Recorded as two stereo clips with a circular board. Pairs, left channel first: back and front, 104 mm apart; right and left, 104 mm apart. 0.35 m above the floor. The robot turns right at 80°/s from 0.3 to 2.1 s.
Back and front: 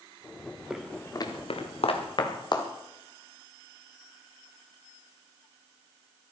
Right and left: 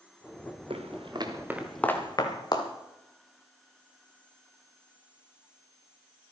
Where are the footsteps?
85° left, 2.5 m; by 2.7 s 135° right, 3 m.